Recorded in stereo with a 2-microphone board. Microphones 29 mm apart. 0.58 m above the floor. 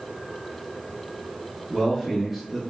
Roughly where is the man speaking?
Centre.